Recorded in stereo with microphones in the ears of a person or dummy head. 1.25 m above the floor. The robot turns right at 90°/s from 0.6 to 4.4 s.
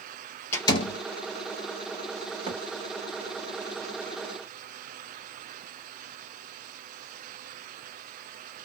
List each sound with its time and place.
0.5 s a door slam: 15° left (ahead or behind), 1.0 m; by 1.0 s 50° left (ahead or behind), 1.0 m
2.5 s a thud: 30° right (ahead or behind), 1.4 m; by 2.6 s 40° right (ahead or behind), 1.4 m